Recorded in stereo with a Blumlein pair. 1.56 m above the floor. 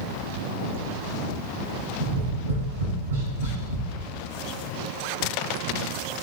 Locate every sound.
2.0 s tapping: 60° right, 3.5 m